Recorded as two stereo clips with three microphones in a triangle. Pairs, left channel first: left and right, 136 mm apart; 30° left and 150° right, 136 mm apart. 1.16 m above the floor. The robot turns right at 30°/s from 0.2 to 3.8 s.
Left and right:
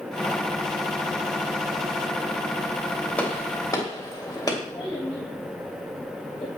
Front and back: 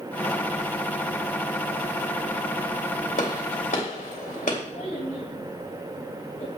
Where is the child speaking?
35° left, 6.5 m.